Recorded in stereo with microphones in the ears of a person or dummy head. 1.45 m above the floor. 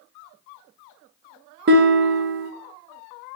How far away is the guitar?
About 0.8 m.